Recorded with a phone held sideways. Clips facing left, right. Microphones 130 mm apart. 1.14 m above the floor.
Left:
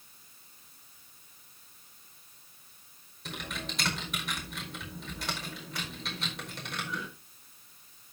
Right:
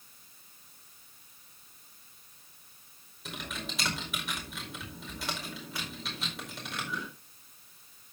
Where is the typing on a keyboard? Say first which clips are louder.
Left 1 dB; centre (ahead or behind), 4.5 m.